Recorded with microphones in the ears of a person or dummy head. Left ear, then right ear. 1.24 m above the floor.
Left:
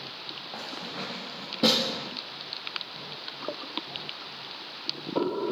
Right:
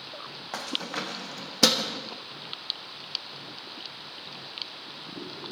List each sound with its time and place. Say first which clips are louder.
0.5 s keys jangling: right 7 dB; 65° right (ahead or behind), 1.1 m